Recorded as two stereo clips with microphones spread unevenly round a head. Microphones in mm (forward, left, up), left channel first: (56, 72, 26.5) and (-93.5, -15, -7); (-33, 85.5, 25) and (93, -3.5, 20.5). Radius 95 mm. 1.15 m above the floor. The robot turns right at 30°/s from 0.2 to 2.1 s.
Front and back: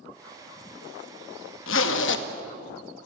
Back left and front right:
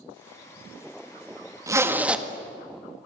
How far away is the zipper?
About 1.7 m.